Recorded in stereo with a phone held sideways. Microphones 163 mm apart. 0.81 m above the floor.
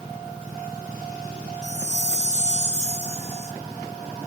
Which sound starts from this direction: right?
A chime, at 1.6 s.